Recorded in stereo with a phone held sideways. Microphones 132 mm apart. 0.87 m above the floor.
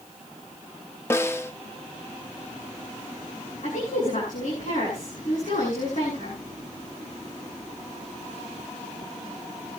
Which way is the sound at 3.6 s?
60° left (ahead or behind).